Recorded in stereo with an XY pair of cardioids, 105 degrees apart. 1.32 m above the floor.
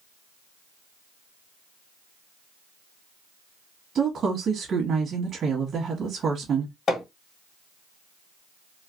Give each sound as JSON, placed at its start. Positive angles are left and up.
{"t": 4.0, "sound": "a woman speaking", "azimuth_deg": -50, "distance_m": 1.2}
{"t": 6.9, "sound": "hammering", "azimuth_deg": 55, "distance_m": 1.5}